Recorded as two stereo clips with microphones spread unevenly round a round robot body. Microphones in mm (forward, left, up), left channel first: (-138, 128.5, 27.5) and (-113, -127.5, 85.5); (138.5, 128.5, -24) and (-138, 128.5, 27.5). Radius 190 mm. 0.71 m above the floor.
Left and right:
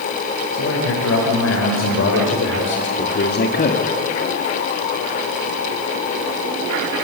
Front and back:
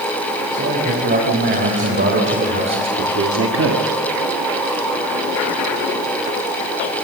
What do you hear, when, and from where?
0.5 s a man speaking: 130° left, 4.5 m; by 3.9 s 140° left, 1.5 m